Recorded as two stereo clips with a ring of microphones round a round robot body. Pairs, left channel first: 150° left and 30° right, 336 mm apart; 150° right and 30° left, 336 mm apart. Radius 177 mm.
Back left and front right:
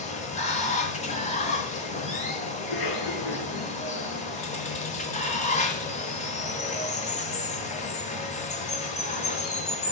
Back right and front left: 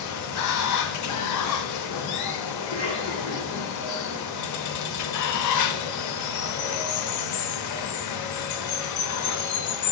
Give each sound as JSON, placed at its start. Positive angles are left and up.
{"t": 0.0, "sound": "running water", "azimuth_deg": -145, "distance_m": 0.8}
{"t": 2.6, "sound": "a cough", "azimuth_deg": 130, "distance_m": 3.0}